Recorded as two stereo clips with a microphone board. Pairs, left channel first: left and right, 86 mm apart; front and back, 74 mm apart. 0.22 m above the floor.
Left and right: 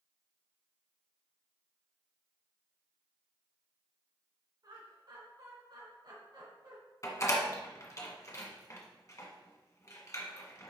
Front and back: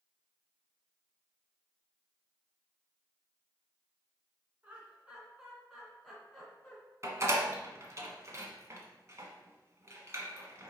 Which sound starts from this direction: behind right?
Laughter, at 4.6 s.